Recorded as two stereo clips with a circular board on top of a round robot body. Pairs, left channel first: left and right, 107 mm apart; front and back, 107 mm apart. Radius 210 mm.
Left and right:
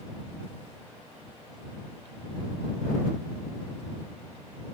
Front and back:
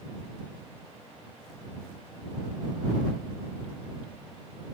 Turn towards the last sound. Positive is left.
No sound to turn to.